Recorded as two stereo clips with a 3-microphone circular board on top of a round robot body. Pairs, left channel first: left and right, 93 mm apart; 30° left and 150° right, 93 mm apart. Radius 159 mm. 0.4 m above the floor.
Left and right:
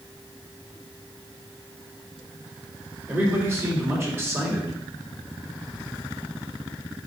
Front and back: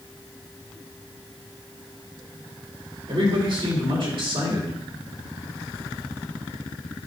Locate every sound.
3.1 s a man speaking: 150° right, 3 m